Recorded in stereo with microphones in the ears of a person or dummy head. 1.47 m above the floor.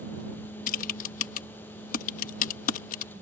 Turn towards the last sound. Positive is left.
turn(degrees=50)  # may be behind; listen again after turning